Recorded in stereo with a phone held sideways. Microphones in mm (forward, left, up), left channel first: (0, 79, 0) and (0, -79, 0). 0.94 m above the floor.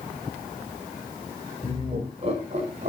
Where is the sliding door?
No sliding door in this recording.